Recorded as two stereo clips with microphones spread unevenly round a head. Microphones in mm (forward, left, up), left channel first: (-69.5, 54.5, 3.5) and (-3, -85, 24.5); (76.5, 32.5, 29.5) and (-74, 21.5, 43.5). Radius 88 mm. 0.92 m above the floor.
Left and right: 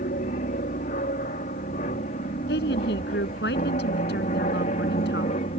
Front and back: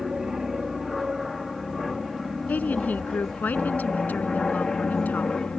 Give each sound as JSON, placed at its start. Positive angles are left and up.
{"t": 0.0, "sound": "an aircraft", "azimuth_deg": 95}
{"t": 2.5, "sound": "a woman speaking", "azimuth_deg": 85}